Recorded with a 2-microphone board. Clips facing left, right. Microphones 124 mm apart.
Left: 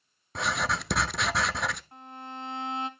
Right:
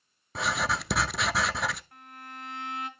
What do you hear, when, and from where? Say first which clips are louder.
0.3 s writing: even; centre (ahead or behind), 0.6 m
1.9 s a violin: left 5 dB; 25° left (ahead or behind), 1.5 m